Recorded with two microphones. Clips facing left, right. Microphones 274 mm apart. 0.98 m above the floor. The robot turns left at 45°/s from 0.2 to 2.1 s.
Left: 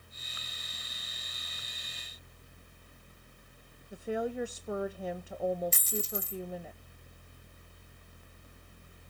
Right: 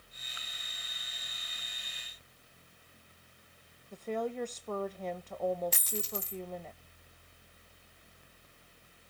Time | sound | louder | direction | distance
3.9 | a woman speaking | left 2 dB | 10° left (ahead or behind) | 0.6 m
5.7 | a dropped coin | left 2 dB | 70° right (ahead or behind) | 1.3 m